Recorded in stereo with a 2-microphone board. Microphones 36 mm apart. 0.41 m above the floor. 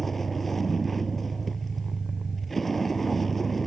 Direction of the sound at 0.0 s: 5° left (ahead or behind).